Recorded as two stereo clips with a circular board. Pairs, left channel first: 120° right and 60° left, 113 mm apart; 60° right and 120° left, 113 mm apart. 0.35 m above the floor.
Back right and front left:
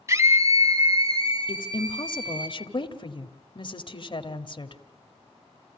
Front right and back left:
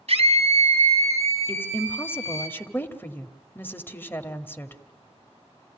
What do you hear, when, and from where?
0.1 s a scream: 125° left, 3 m; by 2.5 s 110° left, 5 m
1.5 s a woman speaking: 125° right, 1.8 m